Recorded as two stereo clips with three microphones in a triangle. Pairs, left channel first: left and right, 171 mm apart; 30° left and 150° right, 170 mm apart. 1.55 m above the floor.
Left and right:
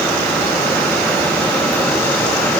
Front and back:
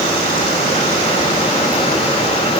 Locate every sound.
Only background noise.